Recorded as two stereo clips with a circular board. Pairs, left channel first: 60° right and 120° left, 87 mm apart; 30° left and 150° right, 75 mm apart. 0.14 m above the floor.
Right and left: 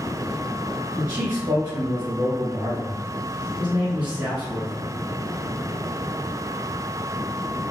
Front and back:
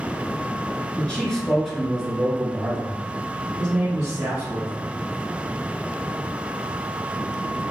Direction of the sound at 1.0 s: 85° left.